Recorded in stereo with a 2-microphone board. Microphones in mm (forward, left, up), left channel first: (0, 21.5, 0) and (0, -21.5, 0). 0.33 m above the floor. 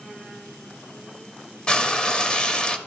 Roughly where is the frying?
Left.